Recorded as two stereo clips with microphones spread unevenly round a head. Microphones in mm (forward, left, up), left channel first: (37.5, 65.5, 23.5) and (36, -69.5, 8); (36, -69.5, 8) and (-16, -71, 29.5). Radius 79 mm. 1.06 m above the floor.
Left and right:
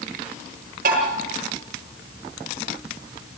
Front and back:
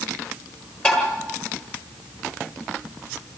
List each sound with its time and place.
0.8 s tapping: 70° right, 10 m